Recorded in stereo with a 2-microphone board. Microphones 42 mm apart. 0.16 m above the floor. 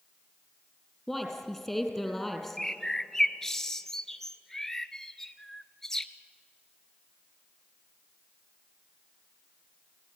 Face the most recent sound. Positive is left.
turn(degrees=10)  # may be behind; listen again after turning